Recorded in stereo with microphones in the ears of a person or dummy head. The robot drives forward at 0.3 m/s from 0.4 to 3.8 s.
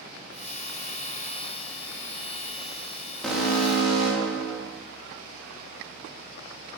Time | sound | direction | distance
3.2 | an alarm | 5° right (ahead or behind) | 0.5 m